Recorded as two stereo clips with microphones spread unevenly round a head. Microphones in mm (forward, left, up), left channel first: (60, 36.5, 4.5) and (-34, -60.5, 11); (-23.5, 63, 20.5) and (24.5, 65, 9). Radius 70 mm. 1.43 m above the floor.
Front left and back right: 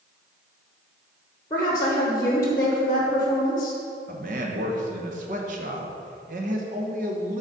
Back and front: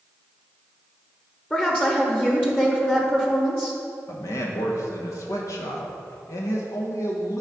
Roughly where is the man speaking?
Behind.